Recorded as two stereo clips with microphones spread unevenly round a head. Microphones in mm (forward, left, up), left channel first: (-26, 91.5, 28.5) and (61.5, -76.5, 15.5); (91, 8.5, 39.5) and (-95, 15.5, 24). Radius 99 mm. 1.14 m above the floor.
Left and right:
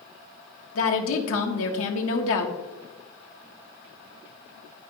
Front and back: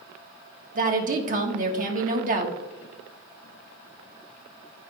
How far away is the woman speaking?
About 1.6 m.